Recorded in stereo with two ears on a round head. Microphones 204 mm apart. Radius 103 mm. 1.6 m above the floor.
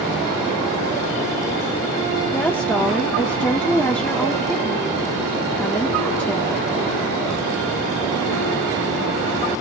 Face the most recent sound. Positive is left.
turn(degrees=10)  # may be behind; listen again after turning